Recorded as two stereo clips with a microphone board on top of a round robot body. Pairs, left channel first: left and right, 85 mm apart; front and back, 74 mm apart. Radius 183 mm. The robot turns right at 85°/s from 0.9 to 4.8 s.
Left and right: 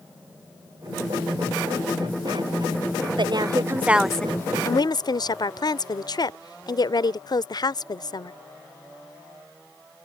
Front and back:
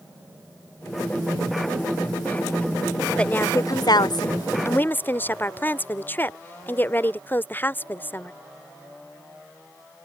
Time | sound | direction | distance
3.2 | a woman speaking | 75° right | ?